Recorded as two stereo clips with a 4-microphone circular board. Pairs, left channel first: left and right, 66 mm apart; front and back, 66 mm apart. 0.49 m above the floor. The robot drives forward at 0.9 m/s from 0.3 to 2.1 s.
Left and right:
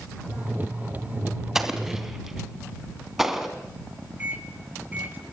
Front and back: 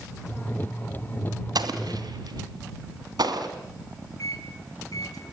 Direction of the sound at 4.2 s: 25° right.